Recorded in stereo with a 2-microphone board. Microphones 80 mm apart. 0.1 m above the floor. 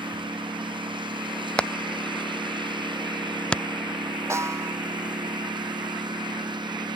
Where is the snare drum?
35° right (ahead or behind).